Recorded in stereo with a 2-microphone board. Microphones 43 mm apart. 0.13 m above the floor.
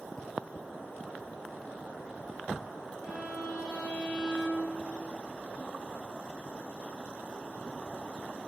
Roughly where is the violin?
Left.